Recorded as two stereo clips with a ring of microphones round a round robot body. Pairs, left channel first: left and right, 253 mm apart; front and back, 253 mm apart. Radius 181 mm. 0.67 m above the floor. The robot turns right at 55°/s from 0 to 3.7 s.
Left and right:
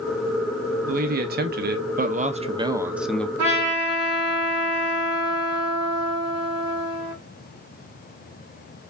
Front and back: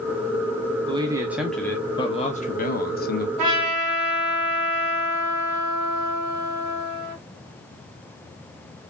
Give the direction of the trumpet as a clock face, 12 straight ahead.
5 o'clock.